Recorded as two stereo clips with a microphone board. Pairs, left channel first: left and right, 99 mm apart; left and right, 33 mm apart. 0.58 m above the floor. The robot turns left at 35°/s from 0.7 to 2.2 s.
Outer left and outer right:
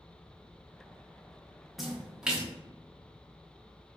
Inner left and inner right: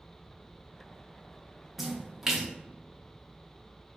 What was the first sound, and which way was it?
A splash, centre (ahead or behind).